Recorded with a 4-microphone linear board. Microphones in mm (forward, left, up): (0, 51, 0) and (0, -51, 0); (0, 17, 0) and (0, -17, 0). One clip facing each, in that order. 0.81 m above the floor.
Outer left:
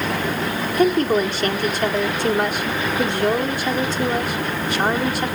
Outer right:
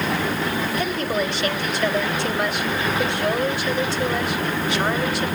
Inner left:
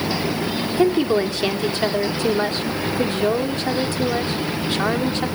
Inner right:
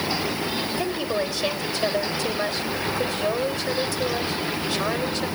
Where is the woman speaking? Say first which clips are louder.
Outer left 11 dB, inner left 11 dB; 45° left (ahead or behind), 1.8 m.